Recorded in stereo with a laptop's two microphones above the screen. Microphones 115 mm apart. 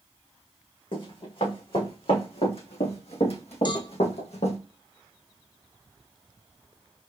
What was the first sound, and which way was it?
Running footsteps, 50° left (ahead or behind).